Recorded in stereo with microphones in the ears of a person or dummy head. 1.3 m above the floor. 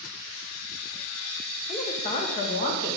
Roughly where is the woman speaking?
Left.